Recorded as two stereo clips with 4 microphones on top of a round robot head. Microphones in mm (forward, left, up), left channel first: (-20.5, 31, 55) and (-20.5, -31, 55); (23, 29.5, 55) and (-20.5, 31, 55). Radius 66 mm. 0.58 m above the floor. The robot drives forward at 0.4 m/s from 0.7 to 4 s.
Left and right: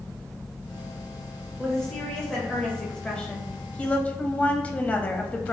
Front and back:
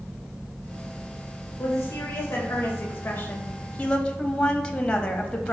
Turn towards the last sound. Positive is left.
turn(degrees=50)